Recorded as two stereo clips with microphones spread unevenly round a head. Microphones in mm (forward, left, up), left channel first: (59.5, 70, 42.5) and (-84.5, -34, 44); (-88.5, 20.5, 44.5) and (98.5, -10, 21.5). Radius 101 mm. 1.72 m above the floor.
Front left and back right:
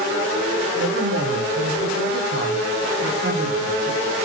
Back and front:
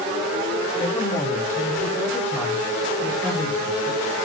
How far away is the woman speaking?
About 3 m.